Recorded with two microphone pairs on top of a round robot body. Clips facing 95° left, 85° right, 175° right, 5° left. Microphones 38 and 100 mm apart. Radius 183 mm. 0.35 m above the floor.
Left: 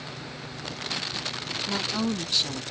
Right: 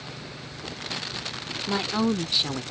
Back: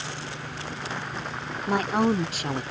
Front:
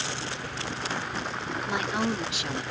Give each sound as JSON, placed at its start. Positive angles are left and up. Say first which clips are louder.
{"t": 1.7, "sound": "a woman speaking", "louder": "right 4 dB, back 6 dB", "azimuth_deg": -145}